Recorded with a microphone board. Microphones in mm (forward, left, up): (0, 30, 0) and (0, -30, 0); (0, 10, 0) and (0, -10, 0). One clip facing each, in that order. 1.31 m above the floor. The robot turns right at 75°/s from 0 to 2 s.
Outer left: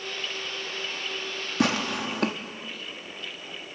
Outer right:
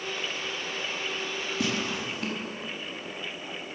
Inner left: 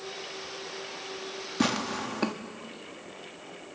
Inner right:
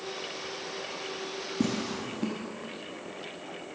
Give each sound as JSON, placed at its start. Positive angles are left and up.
{"t": 1.6, "sound": "tearing paper", "side_deg": 65, "distance_m": 1.4}